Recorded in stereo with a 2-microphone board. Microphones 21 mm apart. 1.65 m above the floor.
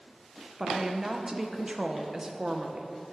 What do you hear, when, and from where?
0.6 s a woman speaking: 25° right (ahead or behind), 0.7 m